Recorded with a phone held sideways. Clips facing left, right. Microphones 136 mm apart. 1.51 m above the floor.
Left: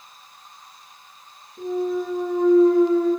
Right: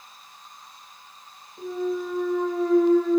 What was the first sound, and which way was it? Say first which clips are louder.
A clunk: left 3 dB; 45° left (ahead or behind).